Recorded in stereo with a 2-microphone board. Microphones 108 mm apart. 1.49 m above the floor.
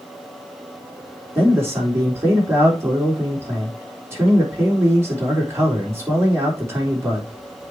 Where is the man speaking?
25° right (ahead or behind), 3.5 m.